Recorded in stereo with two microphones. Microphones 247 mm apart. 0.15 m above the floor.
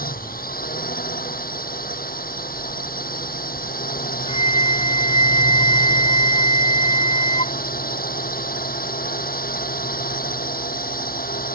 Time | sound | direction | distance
0.0 | a drone | 35° left (ahead or behind) | ?
4.3 | a flute | 25° left (ahead or behind) | ?